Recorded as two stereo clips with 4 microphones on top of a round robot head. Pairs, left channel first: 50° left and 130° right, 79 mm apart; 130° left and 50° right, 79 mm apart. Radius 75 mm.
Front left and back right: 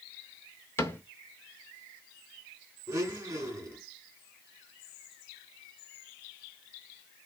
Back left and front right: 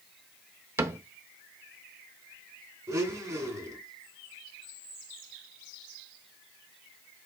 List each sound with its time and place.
0.8 s a cupboard door: straight ahead, 0.6 m
2.9 s a blender: 90° right, 1.3 m